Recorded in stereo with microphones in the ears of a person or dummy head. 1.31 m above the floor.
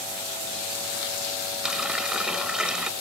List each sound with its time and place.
1.6 s a running tap: centre (ahead or behind)